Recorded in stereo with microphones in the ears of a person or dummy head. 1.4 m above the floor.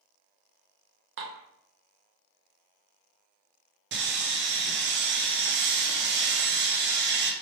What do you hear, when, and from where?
1.2 s dishes clattering: 55° right (ahead or behind), 0.7 m
3.9 s sawing: 55° right (ahead or behind), 0.6 m